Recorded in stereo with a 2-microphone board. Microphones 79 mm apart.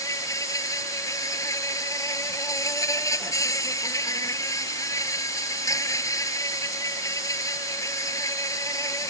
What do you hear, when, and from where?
0.0 s an insect: 45° left (ahead or behind)